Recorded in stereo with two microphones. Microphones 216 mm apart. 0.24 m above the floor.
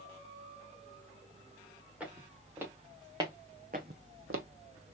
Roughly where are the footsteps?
Centre.